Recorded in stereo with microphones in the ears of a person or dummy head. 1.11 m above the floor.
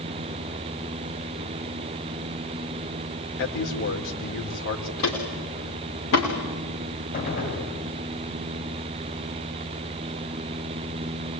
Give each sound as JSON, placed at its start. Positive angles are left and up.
{"t": 3.4, "sound": "a man speaking", "side_deg": 65, "distance_m": 4.0}
{"t": 5.0, "sound": "footsteps", "side_deg": 75, "distance_m": 6.5}
{"t": 7.1, "sound": "a gunshot", "side_deg": 45, "distance_m": 6.0}